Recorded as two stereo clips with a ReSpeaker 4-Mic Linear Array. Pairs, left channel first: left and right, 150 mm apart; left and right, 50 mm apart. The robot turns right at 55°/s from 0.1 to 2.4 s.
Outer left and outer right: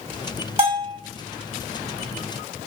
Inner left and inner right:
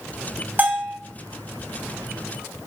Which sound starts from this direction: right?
A bell, at 0.6 s.